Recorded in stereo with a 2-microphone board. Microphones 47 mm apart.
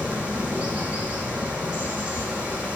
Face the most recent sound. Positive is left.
turn(degrees=-25)  # may be behind; listen again after turning